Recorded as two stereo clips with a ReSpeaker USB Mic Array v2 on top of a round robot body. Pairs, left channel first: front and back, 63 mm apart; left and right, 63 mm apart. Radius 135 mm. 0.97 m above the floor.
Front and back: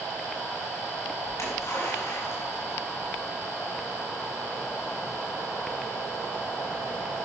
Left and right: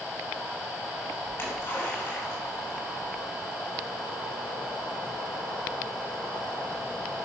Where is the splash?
35° left, 4 m.